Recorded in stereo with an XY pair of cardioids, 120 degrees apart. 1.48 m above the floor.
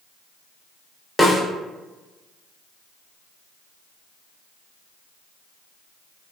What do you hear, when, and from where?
1.2 s a snare drum: 10° left, 0.6 m